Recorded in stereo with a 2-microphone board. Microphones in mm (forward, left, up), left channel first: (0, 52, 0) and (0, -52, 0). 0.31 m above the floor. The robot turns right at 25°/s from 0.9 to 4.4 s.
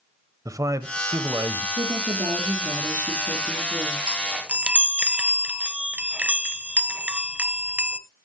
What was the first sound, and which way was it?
A man speaking, 35° right (ahead or behind).